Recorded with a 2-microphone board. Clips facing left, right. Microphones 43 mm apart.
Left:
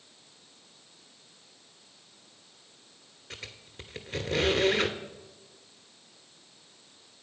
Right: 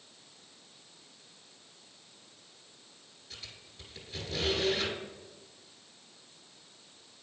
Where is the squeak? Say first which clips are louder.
Left 6 dB; 55° left (ahead or behind), 0.6 m.